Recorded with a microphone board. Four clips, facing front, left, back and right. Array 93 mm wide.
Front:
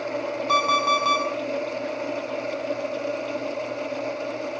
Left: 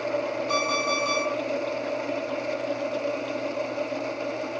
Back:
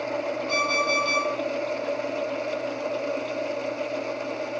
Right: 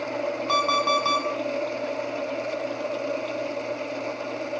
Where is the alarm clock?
55° right, 6 m.